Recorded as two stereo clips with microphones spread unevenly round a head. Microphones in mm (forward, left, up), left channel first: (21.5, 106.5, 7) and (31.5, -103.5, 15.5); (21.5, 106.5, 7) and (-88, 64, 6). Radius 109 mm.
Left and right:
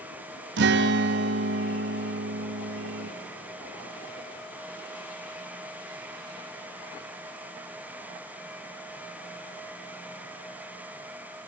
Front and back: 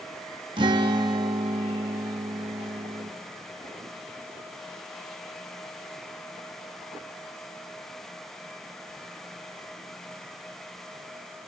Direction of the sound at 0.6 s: 105° right.